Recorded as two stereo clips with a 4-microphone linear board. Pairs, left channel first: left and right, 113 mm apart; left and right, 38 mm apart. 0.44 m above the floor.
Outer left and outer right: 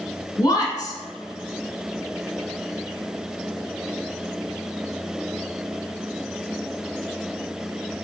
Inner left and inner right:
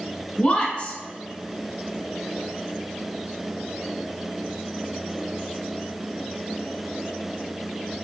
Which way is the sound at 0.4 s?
35° left (ahead or behind).